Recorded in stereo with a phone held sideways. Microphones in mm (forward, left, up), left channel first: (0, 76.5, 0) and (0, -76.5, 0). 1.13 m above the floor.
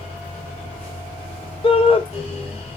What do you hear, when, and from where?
0.0 s a fan: 40° left (ahead or behind), 6.5 m
1.6 s a shout: 35° left (ahead or behind), 0.9 m